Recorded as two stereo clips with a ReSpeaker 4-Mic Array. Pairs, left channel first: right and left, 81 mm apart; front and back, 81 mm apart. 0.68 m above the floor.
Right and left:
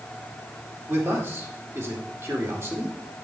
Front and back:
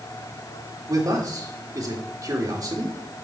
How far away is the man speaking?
About 1.9 m.